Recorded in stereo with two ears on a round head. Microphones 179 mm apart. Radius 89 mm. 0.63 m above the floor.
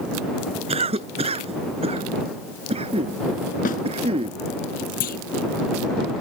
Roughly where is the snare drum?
Left.